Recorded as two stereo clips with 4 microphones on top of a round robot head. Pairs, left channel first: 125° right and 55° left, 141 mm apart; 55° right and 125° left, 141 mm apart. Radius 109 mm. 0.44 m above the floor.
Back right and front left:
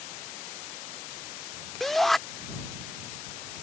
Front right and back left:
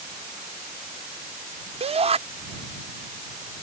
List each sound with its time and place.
1.8 s a shout: 150° left